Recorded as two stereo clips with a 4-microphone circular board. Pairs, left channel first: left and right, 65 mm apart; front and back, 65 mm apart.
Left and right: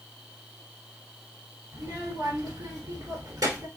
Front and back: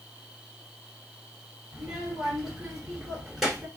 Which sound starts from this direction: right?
A child speaking, at 1.7 s.